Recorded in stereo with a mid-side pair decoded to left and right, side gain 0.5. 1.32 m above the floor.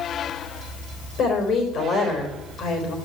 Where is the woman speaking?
60° left, 4 m.